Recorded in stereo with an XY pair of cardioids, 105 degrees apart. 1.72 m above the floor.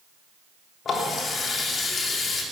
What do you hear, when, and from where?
0.8 s a running tap: 50° left, 3 m